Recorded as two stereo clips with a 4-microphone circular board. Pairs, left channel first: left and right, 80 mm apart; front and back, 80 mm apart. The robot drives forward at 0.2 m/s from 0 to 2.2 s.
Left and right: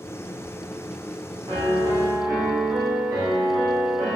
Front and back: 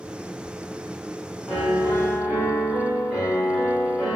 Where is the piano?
85° right, 1.1 m; by 4.2 s 95° right, 1.1 m.